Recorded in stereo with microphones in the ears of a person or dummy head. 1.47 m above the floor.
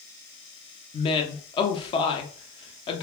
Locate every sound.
0.9 s a woman speaking: 30° left (ahead or behind), 0.7 m